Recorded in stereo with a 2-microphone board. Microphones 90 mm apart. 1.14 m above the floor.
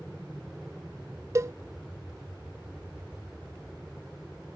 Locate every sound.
0.0 s an aircraft: centre (ahead or behind)
1.4 s a cowbell: 35° right (ahead or behind)